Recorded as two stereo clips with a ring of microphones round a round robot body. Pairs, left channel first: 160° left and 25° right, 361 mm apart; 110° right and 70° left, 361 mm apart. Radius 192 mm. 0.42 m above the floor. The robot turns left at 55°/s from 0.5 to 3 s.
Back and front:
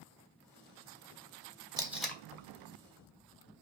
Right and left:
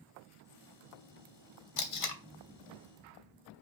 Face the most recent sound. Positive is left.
turn(degrees=-165)